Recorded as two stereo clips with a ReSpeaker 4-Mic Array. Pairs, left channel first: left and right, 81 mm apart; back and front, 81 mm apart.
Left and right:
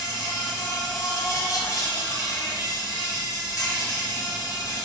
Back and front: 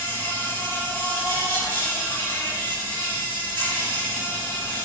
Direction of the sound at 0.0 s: 120° left.